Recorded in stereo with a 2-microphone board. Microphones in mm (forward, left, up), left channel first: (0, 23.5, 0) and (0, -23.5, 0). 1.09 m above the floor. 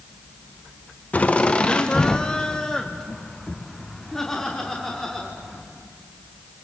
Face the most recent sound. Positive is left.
turn(degrees=5)  # may be behind; listen again after turning